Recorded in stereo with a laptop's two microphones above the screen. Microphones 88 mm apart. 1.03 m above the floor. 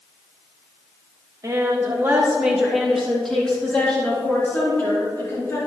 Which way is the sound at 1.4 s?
40° right (ahead or behind).